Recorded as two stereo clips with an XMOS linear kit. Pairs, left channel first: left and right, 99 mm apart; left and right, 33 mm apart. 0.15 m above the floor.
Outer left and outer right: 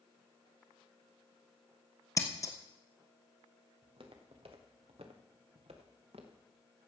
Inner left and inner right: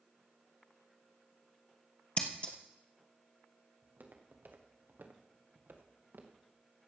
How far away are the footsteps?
About 2.5 m.